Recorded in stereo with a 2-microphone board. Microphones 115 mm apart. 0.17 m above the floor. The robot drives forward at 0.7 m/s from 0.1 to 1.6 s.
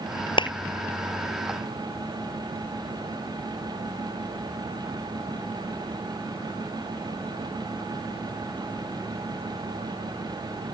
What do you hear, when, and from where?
0.4 s a clap: 45° left (ahead or behind)